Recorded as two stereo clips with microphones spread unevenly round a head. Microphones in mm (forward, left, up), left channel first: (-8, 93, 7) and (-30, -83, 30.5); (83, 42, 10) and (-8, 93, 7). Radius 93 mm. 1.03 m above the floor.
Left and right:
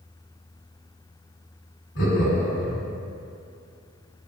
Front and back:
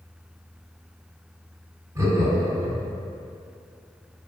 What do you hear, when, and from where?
1.9 s laughter: 90° left, 1.9 m